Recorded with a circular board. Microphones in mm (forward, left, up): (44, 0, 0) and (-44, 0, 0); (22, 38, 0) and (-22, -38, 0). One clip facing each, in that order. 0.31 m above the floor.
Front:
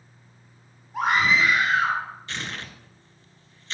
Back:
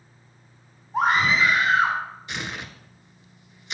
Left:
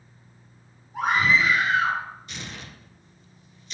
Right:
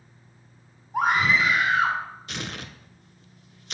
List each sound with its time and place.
0.9 s a scream: 130° right, 2 m
2.3 s tearing paper: 105° right, 0.6 m